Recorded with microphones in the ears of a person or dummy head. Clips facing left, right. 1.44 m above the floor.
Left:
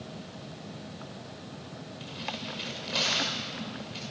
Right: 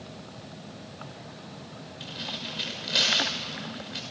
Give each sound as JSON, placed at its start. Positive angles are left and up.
{"t": 2.0, "sound": "tearing paper", "side_deg": -20, "distance_m": 6.0}